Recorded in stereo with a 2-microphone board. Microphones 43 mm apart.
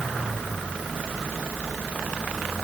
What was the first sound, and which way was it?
Only background noise.